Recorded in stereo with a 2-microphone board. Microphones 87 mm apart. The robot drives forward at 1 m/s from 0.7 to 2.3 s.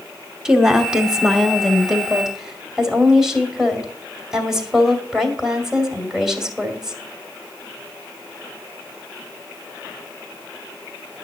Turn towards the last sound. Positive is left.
turn(degrees=-5)  # may be behind; listen again after turning